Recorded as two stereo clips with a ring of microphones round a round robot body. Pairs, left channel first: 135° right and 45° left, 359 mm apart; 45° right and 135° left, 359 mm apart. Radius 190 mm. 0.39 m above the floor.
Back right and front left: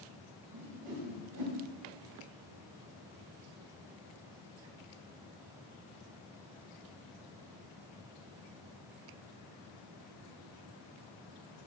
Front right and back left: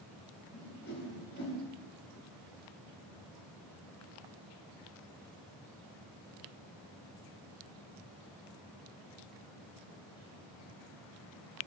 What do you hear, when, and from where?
0.5 s a whoosh: 10° left, 1.8 m